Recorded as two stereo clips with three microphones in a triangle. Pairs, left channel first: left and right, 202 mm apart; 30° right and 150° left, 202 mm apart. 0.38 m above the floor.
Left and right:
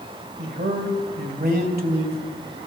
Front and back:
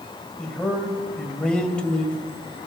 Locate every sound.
0.4 s a man speaking: 115° right, 1.7 m